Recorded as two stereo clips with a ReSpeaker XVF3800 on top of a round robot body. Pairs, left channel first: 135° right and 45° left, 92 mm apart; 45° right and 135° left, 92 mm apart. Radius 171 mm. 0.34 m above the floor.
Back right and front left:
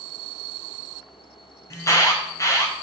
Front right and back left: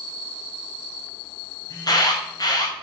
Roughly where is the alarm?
Right.